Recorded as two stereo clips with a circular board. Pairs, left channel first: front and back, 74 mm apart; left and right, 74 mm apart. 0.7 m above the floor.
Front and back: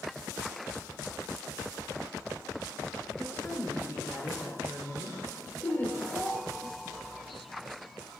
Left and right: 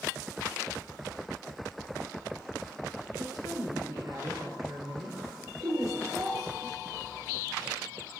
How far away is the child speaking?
About 4 m.